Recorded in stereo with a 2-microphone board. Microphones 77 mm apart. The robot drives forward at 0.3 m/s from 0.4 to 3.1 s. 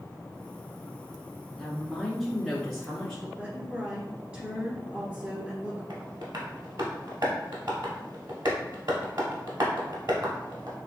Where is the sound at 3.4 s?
20° right (ahead or behind), 1.7 m.